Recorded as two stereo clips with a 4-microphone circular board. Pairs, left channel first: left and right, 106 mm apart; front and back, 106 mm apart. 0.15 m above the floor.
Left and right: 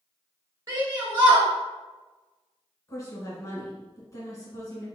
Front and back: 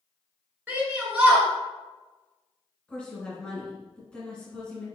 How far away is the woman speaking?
About 1.7 m.